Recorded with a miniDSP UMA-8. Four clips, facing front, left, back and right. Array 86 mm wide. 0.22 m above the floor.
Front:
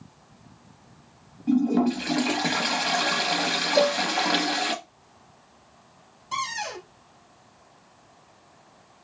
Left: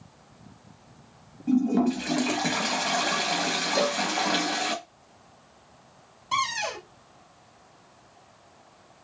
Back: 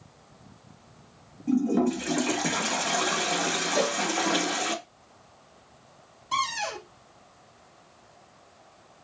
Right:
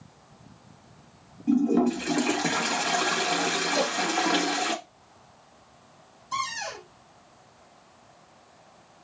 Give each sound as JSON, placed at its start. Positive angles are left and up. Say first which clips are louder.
{"t": 1.5, "sound": "a toilet flushing", "louder": "right 1 dB, front 2 dB", "azimuth_deg": 5, "distance_m": 0.8}
{"t": 3.8, "sound": "a cowbell", "louder": "left 4 dB, front 6 dB", "azimuth_deg": 110, "distance_m": 1.8}
{"t": 6.3, "sound": "a cupboard door", "louder": "left 4 dB, back 2 dB", "azimuth_deg": 95, "distance_m": 2.0}